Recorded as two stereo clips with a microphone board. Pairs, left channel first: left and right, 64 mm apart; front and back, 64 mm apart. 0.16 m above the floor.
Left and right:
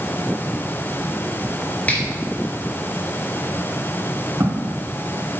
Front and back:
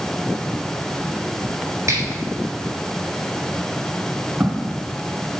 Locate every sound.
1.9 s a finger snap: 150° left, 2.5 m
4.4 s footsteps: 125° right, 3 m